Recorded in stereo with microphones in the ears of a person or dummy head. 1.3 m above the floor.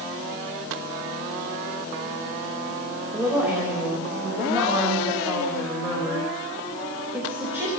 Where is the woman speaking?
10° right (ahead or behind), 5.5 m.